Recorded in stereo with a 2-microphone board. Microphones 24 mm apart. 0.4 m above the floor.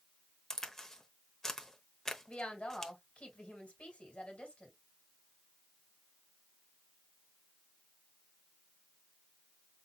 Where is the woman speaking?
60° left (ahead or behind), 2.5 m.